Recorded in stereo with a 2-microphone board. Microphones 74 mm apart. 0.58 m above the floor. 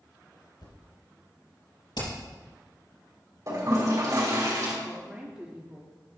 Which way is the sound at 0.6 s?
70° left (ahead or behind).